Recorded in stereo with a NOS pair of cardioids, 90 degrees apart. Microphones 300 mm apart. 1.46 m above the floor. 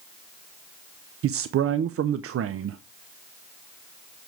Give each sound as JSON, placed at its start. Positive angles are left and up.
{"t": 1.2, "sound": "a man speaking", "azimuth_deg": -50, "distance_m": 0.7}